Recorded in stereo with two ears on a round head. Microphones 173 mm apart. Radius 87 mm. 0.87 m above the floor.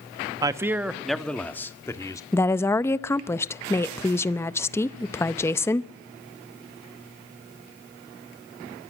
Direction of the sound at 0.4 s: 20° right (ahead or behind).